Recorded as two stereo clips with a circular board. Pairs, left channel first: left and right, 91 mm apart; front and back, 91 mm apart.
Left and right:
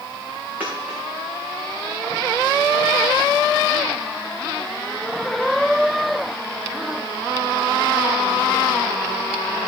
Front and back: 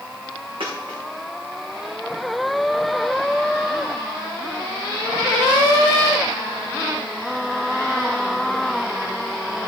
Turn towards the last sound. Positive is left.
turn(degrees=-165)